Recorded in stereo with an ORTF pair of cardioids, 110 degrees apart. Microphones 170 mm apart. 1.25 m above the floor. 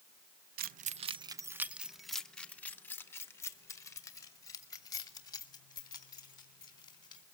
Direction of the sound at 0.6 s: 65° right.